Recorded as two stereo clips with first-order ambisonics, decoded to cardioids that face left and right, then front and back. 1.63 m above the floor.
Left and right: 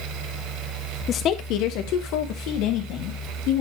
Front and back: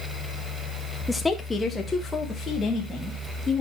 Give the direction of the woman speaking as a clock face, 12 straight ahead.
9 o'clock.